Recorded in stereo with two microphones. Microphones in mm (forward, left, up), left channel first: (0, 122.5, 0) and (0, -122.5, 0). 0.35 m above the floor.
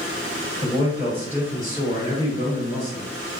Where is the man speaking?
15° right (ahead or behind), 1.7 m; by 3.1 s 40° right (ahead or behind), 1.7 m.